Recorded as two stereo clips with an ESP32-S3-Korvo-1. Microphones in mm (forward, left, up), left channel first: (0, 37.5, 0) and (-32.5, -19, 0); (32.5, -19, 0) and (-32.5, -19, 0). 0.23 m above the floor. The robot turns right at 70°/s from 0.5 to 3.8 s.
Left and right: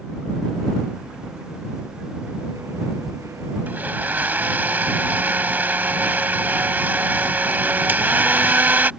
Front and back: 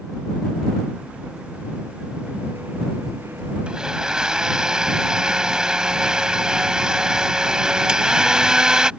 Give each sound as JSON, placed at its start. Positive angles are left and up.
{"t": 3.7, "sound": "a blender", "azimuth_deg": -125}